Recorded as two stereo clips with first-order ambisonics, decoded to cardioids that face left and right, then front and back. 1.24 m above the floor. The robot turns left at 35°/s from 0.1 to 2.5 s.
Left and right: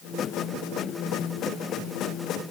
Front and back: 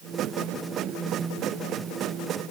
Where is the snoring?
No snoring in this recording.